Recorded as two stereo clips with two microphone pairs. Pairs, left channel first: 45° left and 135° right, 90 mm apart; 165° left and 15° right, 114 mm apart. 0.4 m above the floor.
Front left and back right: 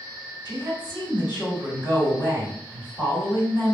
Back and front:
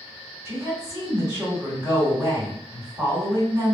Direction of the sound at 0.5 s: 45° left.